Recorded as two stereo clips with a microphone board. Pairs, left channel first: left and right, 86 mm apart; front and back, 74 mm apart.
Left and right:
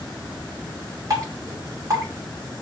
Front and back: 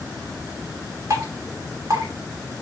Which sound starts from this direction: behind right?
Dripping, at 1.1 s.